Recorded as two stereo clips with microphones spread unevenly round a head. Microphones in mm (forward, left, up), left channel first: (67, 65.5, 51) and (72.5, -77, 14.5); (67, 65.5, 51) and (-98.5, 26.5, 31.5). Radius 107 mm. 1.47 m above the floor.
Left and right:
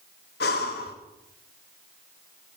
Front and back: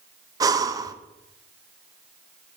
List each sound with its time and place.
0.4 s breathing: 125° left, 0.5 m